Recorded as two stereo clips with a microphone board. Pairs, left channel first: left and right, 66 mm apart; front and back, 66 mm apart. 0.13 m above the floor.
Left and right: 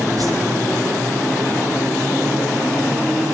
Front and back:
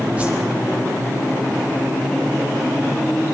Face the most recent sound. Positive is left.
turn(degrees=-110)